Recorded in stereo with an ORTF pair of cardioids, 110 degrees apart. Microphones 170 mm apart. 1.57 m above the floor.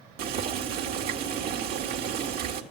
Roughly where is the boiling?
Ahead right.